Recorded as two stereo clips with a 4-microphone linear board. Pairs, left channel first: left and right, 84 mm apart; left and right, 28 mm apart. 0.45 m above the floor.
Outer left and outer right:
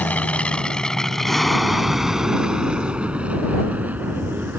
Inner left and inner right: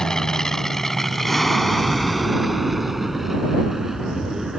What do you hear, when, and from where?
0.0 s an aircraft: 20° left (ahead or behind); by 4.6 s 20° right (ahead or behind)